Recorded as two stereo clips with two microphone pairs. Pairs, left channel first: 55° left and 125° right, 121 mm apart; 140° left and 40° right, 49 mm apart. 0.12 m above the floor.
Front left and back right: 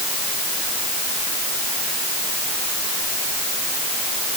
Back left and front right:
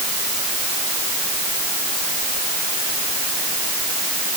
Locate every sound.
Only background noise.